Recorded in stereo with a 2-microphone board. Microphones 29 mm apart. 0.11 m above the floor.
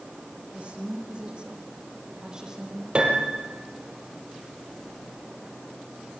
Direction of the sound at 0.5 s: 40° right (ahead or behind).